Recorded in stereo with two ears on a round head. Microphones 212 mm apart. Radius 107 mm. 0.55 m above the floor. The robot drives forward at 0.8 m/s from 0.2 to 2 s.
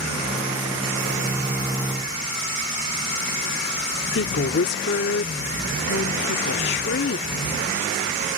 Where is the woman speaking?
50° left (ahead or behind).